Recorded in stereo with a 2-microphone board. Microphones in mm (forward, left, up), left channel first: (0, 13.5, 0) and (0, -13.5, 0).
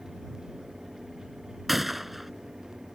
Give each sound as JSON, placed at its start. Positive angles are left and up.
{"t": 1.7, "sound": "a gunshot", "side_deg": -5}